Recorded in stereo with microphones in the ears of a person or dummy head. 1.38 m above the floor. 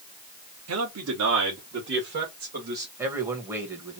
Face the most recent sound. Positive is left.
turn(degrees=-10)  # may be behind; listen again after turning